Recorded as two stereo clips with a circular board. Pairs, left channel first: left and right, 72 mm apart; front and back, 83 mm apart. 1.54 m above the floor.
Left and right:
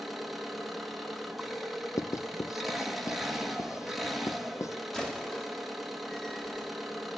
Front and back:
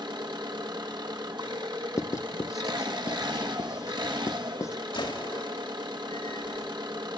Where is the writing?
50° left, 0.5 m.